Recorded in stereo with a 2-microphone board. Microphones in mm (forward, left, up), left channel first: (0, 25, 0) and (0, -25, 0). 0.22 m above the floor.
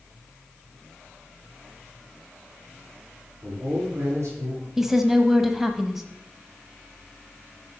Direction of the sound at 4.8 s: 5° right (ahead or behind).